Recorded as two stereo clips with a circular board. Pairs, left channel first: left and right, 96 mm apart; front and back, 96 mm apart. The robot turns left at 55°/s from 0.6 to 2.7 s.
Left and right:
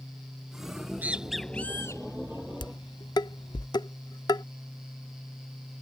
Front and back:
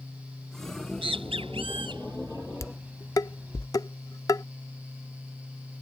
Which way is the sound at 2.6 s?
55° left.